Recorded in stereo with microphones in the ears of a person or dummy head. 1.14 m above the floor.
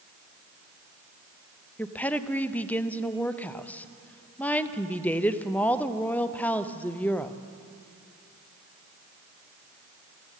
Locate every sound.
1.8 s a woman speaking: 10° left (ahead or behind), 0.6 m